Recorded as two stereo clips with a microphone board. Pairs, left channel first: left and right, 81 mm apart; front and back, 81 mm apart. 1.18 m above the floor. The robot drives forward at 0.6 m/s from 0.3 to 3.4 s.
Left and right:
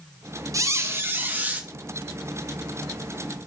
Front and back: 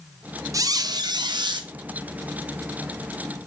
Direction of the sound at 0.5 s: 135° right.